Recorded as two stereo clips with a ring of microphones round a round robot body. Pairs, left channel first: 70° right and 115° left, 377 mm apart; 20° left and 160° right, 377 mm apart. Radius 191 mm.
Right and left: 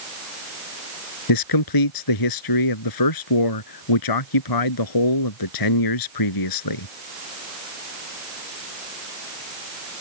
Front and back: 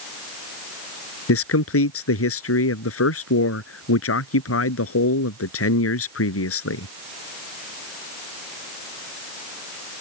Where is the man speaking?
35° right.